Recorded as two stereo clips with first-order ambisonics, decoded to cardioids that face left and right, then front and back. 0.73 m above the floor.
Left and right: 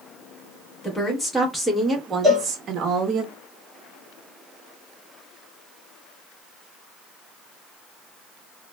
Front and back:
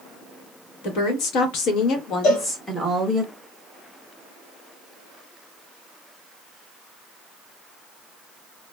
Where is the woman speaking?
15° left, 1.2 m; by 3.2 s 100° right, 0.8 m.